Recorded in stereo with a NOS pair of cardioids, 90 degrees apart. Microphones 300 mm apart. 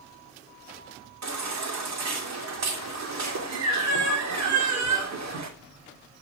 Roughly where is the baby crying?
Ahead right.